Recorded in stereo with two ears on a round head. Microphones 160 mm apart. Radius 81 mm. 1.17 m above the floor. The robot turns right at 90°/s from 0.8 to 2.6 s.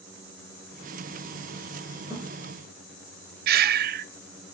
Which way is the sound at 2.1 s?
20° right (ahead or behind).